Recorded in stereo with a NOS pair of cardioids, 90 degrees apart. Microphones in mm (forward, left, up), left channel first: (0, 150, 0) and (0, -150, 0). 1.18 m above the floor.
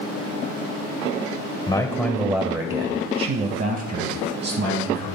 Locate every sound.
1.7 s a man speaking: 15° left, 0.7 m; by 5.1 s 60° right, 1.8 m